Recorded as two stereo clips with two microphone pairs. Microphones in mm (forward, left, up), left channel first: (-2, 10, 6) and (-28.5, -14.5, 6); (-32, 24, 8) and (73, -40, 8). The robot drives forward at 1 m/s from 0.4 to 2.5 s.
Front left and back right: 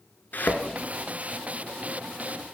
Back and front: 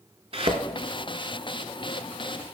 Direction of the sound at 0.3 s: 5° left.